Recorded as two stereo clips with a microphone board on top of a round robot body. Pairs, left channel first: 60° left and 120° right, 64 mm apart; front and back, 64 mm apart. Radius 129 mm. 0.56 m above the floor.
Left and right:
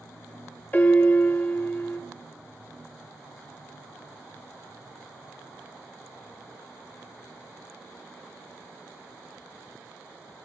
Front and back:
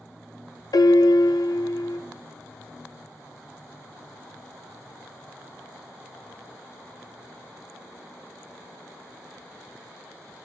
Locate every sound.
0.7 s a piano: 5° right, 0.6 m